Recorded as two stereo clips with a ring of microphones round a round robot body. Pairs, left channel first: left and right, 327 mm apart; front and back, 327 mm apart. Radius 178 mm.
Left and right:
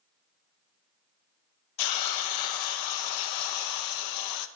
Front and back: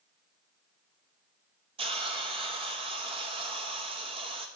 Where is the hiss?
105° left, 0.5 m.